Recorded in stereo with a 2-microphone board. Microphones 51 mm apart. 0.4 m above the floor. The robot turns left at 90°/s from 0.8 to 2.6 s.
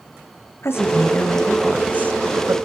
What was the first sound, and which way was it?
A woman speaking, 70° left.